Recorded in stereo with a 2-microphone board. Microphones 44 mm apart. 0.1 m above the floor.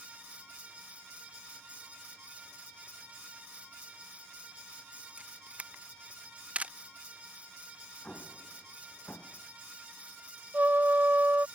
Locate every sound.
5.2 s a camera shutter: 30° right (ahead or behind)
8.0 s an explosion: 25° left (ahead or behind)
10.5 s a trumpet: 45° right (ahead or behind)